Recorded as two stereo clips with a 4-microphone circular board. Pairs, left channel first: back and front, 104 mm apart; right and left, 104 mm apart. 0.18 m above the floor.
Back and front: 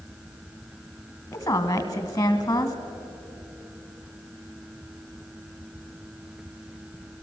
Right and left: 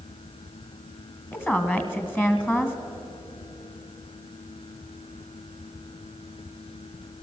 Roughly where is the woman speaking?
Behind right.